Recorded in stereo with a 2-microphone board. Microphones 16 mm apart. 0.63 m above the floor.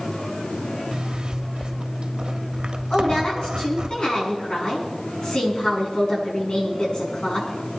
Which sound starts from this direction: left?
A woman speaking, at 2.9 s.